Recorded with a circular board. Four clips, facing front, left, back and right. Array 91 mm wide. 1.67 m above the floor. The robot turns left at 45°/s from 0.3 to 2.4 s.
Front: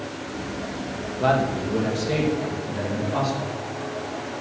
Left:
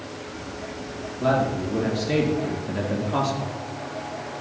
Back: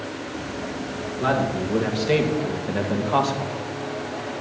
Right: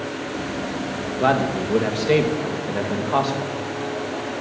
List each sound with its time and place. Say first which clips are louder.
1.2 s a man speaking: right 2 dB, front 1 dB; 80° right, 2 m; by 3.5 s 135° right, 2 m